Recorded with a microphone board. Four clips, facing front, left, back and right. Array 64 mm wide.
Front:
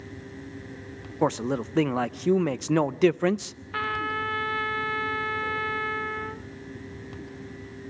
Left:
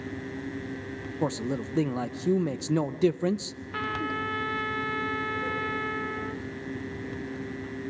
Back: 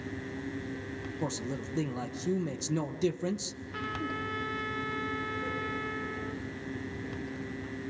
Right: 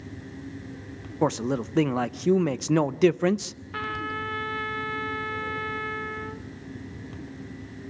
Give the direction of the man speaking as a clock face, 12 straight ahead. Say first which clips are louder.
Right 5 dB, front 12 dB; 1 o'clock.